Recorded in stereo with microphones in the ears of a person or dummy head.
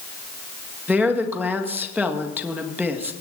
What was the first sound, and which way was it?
A woman speaking, 5° left (ahead or behind).